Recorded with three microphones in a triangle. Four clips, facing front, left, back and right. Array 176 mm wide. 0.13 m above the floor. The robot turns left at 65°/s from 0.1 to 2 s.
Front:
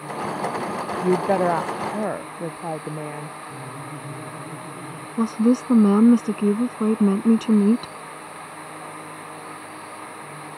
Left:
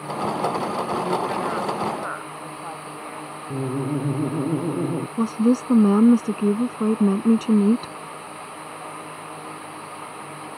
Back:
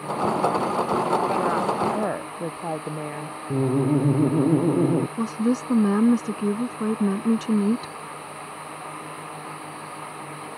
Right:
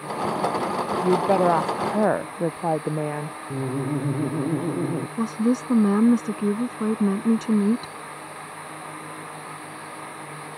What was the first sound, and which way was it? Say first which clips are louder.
A woman speaking: right 5 dB, front 3 dB; 25° right.